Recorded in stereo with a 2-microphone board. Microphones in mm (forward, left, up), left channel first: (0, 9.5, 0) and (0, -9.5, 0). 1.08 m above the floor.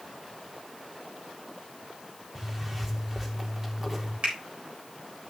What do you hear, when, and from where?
2.4 s a zipper: 15° right (ahead or behind), 1.6 m
4.2 s a finger snap: 80° right, 3.5 m